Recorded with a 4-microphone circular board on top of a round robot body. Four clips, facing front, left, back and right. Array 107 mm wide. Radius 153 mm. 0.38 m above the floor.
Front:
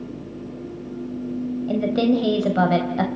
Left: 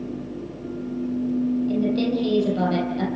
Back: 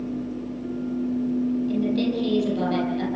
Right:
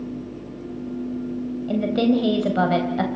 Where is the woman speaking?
35° right, 3.5 m.